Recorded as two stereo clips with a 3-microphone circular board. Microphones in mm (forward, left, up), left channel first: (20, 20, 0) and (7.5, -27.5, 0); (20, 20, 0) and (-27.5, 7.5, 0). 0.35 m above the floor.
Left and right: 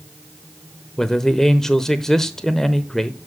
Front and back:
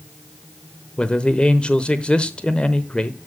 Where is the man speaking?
10° left, 0.9 m.